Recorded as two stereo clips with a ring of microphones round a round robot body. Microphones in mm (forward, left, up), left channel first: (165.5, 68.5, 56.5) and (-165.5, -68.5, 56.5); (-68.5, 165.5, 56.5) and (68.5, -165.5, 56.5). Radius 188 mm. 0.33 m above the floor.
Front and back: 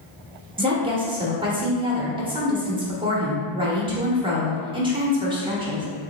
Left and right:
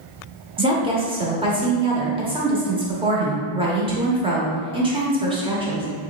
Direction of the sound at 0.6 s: 110° right.